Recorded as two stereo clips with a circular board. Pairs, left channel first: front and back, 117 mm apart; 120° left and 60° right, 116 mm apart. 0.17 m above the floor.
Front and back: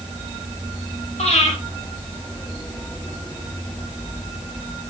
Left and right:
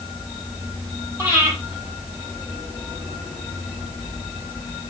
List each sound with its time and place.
1.2 s breathing: 10° left, 6.5 m